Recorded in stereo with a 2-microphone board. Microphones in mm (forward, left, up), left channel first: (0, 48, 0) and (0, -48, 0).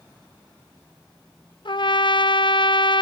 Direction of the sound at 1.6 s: 60° left (ahead or behind).